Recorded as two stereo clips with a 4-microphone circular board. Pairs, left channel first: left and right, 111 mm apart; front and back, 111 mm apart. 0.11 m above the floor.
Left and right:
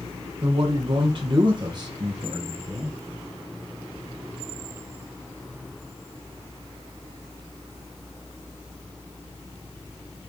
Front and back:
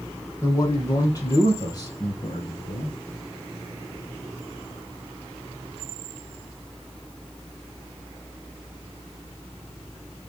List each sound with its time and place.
0.4 s a man speaking: 60° right, 4.5 m; by 3.0 s 25° right, 2.5 m